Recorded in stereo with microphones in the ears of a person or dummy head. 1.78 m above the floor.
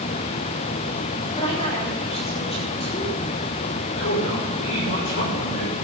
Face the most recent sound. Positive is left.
turn(degrees=70)  # may be behind; listen again after turning